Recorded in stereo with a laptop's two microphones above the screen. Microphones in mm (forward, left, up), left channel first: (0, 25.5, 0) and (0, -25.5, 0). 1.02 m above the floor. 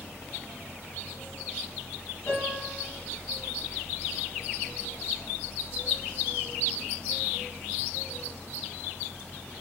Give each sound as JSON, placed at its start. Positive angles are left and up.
{"t": 0.0, "sound": "a fan", "side_deg": 55, "distance_m": 4.0}
{"t": 2.3, "sound": "a piano", "side_deg": 35, "distance_m": 8.0}